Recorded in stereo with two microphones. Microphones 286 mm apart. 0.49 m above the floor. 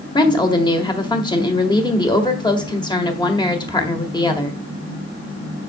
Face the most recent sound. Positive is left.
turn(degrees=15)  # may be behind; listen again after turning